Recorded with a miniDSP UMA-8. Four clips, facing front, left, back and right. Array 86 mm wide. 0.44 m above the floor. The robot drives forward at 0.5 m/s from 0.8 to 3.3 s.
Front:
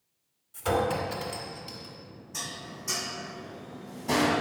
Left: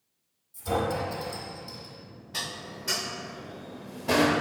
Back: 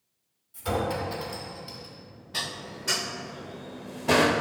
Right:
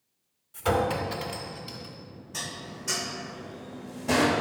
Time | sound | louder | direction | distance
0.5 | a clink | right 2 dB, front 2 dB | 75° right | 2 m
2.3 | dishes clattering | left 1 dB, back 4 dB | 155° left | 0.6 m